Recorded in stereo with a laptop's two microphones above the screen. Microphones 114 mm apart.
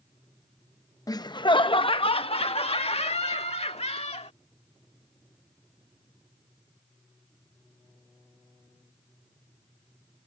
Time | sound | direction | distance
1.1 | laughter | 35° left (ahead or behind) | ?